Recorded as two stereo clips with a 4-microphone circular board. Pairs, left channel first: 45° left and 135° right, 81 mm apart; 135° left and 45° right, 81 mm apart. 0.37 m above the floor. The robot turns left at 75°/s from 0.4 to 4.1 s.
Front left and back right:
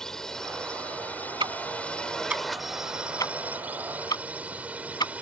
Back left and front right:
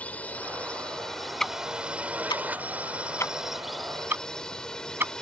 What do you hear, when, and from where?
0.0 s a drone: 115° left; by 5.2 s 160° right
1.4 s ticking: 140° right; by 5.1 s 20° left